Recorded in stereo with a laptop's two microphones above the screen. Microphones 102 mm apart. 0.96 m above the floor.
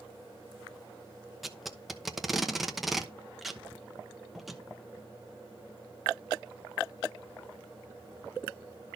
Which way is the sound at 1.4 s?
Centre (ahead or behind).